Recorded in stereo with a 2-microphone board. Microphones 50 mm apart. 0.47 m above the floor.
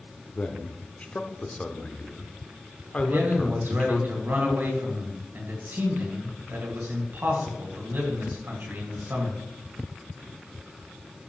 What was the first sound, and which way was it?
A man speaking, 25° left (ahead or behind).